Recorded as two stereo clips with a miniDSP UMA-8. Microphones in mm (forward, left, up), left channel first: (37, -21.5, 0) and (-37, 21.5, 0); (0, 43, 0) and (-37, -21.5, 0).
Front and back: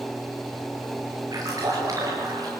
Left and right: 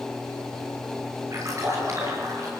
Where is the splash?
165° right, 8.5 m.